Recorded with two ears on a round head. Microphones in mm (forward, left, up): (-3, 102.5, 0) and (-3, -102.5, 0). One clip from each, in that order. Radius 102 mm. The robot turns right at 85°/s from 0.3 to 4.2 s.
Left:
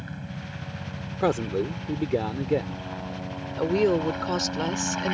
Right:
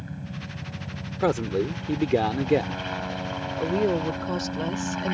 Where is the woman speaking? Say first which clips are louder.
Left 2 dB; 80° left; by 5.1 s 135° left.